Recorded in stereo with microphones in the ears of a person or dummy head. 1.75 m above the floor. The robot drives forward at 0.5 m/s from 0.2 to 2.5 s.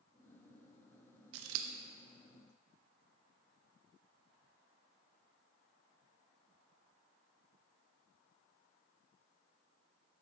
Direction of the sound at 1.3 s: 75° right (ahead or behind).